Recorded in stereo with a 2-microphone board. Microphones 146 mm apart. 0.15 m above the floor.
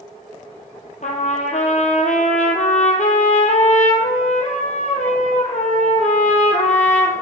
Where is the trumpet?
60° left (ahead or behind), 1.4 m.